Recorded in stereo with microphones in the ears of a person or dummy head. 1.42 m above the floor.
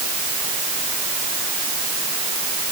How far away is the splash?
I don't hear a splash.